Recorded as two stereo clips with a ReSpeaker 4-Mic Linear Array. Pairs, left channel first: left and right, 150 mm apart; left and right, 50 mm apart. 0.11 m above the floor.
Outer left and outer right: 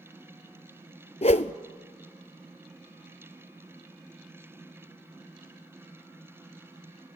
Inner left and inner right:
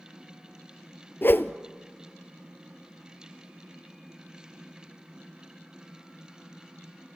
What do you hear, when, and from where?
1.2 s a whoosh: 50° left (ahead or behind), 0.6 m